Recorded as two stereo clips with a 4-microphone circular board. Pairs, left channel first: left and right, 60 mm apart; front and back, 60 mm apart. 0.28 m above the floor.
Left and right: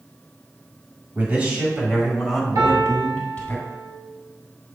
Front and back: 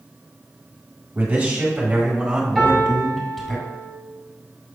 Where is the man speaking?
135° right, 1.8 m; by 3.5 s 90° left, 1.5 m.